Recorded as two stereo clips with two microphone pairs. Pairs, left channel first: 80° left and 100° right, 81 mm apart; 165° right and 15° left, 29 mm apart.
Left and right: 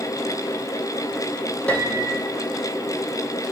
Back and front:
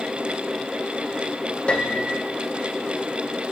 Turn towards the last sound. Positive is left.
turn(degrees=150)